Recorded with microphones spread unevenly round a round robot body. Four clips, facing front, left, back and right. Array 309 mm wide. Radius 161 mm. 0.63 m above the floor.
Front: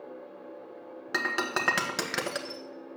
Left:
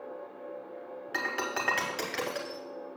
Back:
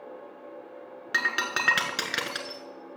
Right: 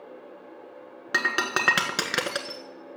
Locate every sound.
1.1 s breaking glass: 95° right, 1.4 m